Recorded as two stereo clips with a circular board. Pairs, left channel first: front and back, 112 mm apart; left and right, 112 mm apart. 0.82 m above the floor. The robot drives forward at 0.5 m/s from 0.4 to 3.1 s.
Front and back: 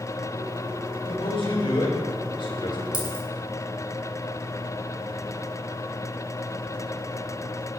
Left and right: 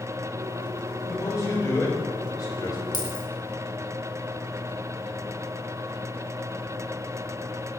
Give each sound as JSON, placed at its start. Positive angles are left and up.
{"t": 1.1, "sound": "a man speaking", "azimuth_deg": 30, "distance_m": 4.0}
{"t": 2.9, "sound": "a dropped coin", "azimuth_deg": 135, "distance_m": 2.5}